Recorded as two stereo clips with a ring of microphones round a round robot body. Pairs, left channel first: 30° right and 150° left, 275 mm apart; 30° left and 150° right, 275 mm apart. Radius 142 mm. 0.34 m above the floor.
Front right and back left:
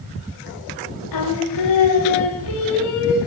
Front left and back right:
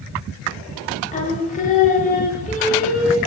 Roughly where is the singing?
Ahead right.